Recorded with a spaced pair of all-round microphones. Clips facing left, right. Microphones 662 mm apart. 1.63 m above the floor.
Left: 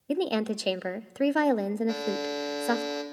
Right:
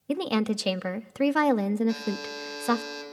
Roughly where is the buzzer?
Left.